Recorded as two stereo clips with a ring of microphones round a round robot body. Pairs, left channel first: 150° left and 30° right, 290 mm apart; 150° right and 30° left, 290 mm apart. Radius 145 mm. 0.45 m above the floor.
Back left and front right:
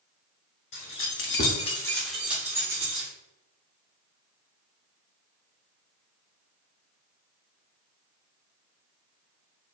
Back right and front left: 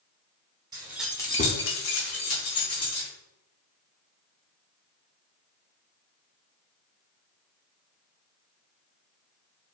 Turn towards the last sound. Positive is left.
turn(degrees=-105)